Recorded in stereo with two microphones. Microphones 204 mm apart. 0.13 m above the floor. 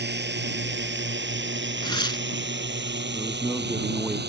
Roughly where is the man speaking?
Centre.